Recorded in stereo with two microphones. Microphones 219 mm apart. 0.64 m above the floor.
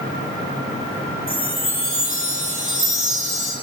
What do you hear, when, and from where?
1.3 s a chime: 70° right (ahead or behind), 6.5 m